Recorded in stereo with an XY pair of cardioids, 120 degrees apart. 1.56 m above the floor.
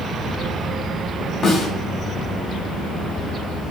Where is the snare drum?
35° left, 1.6 m.